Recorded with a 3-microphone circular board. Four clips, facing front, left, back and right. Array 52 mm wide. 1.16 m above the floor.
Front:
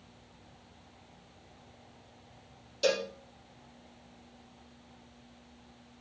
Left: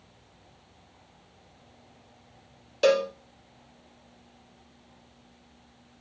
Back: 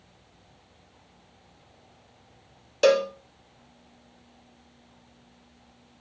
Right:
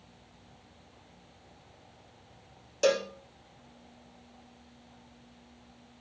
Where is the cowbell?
160° left, 1.5 m.